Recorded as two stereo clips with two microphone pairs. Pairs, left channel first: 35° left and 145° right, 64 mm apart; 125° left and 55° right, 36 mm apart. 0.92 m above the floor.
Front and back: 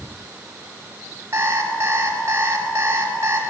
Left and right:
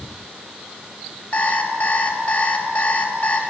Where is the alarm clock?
165° left, 4 m.